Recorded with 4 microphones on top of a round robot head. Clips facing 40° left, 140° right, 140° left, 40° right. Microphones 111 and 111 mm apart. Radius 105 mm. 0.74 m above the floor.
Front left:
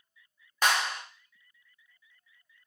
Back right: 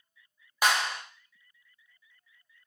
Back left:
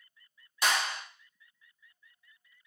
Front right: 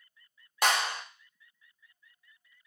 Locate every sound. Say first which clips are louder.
0.6 s a clap: back right 1 dB, front right 2 dB; 60° right, 1.1 m